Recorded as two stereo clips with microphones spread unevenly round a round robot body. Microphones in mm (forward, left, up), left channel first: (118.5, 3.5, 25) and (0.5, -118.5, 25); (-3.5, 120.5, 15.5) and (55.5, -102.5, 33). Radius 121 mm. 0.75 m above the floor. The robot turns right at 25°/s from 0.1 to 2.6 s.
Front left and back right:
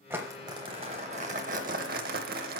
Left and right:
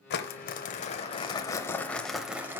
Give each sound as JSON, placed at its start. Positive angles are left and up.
{"t": 0.1, "sound": "crumpling", "azimuth_deg": 145, "distance_m": 0.7}